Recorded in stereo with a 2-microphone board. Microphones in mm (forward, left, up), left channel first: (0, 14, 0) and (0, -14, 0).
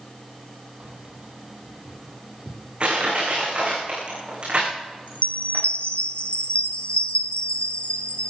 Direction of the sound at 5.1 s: 45° left (ahead or behind).